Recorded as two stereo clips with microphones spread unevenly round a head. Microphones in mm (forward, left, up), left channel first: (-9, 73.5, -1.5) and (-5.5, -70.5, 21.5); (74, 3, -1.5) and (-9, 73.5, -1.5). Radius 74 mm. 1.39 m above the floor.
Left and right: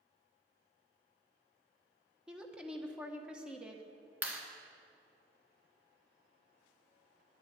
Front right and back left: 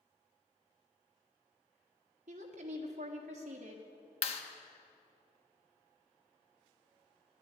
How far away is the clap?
About 1.2 m.